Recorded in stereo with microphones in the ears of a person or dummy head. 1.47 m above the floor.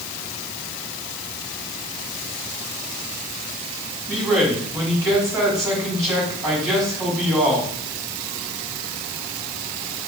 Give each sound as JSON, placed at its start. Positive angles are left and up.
{"t": 4.1, "sound": "a man speaking", "side_deg": -20, "distance_m": 4.5}